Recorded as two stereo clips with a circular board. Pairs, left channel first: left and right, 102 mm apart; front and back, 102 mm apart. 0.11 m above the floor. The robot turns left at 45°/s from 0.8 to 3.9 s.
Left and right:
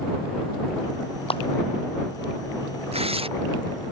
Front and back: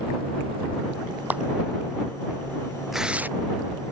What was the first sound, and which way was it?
A clap, 105° left.